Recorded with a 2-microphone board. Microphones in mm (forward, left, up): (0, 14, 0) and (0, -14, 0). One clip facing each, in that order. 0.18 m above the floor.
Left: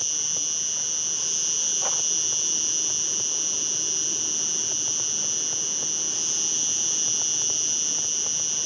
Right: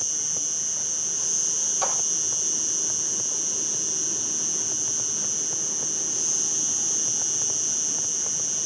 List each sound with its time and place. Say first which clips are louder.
0.0 s an insect: left 2 dB; 40° left (ahead or behind), 0.7 m
1.8 s a clap: right 5 dB; 55° right (ahead or behind), 5.5 m